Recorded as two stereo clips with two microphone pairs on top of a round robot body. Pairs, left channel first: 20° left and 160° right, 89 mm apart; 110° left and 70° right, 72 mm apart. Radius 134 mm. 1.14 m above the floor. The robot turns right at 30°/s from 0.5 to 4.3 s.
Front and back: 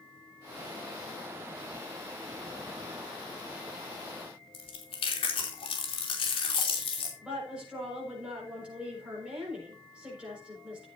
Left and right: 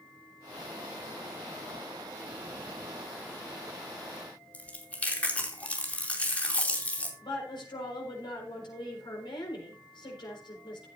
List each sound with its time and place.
4.5 s chewing: 40° left, 3 m
7.2 s a woman speaking: 120° left, 5 m